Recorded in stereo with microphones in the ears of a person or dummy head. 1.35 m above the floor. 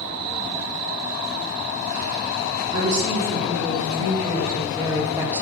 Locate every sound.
2.7 s a woman speaking: 50° right (ahead or behind), 3 m; by 5.4 s 15° right (ahead or behind), 1.0 m